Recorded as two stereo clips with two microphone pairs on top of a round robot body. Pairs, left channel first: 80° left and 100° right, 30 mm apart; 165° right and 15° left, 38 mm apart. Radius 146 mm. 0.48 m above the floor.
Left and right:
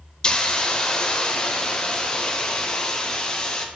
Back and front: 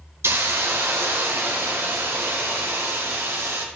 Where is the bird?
No bird in this recording.